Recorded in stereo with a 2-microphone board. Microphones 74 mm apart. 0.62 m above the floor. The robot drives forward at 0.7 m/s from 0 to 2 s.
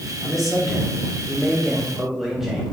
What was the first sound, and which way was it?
A man speaking, centre (ahead or behind).